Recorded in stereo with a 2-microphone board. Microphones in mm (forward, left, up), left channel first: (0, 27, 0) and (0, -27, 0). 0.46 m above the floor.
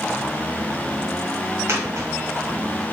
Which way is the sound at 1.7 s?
70° right (ahead or behind).